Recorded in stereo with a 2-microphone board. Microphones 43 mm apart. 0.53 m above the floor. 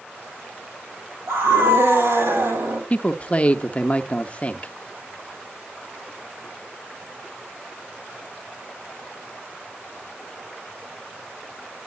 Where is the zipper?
No zipper in this recording.